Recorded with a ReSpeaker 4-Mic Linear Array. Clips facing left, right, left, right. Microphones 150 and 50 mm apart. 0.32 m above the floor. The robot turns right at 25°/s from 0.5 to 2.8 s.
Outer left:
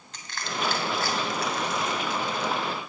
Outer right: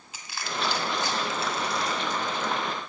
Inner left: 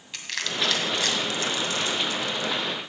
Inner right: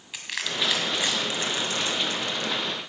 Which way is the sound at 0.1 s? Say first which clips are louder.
Even, even; 10° right (ahead or behind).